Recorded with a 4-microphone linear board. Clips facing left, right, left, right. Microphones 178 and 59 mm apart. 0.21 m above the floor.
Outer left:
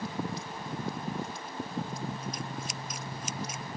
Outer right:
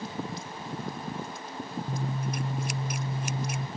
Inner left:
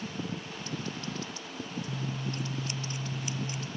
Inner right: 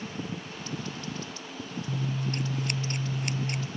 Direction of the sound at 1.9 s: 65° right (ahead or behind).